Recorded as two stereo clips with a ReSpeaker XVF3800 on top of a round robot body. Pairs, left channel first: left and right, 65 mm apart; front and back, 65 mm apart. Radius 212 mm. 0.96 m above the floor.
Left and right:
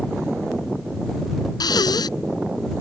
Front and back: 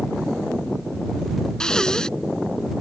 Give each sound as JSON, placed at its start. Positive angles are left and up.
{"t": 1.6, "sound": "breathing", "azimuth_deg": 80}